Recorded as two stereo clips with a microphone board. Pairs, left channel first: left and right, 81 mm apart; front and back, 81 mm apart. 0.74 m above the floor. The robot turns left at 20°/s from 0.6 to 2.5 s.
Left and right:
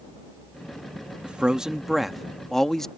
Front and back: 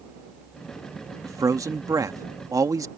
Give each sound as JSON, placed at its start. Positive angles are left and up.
{"t": 1.2, "sound": "a man speaking", "azimuth_deg": -160}